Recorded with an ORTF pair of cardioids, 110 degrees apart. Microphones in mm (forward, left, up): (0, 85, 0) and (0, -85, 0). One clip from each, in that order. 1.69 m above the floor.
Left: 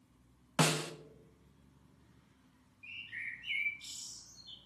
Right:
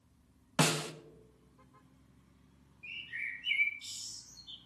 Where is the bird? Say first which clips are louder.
Right 3 dB; straight ahead, 4.5 m.